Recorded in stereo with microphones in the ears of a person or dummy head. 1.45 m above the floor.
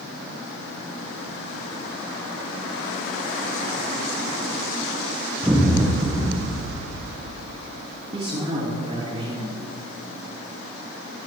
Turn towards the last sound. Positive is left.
turn(degrees=-30)  # may be behind; listen again after turning